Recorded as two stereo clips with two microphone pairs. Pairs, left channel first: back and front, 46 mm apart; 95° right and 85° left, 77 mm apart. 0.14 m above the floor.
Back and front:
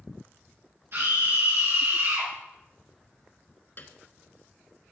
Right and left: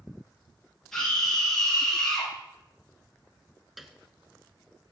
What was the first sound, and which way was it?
A scream, 10° right.